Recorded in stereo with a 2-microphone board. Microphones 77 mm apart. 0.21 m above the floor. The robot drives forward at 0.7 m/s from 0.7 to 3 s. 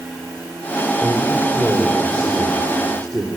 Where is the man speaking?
10° left (ahead or behind), 4.5 m; by 3.3 s 15° left (ahead or behind), 3.5 m.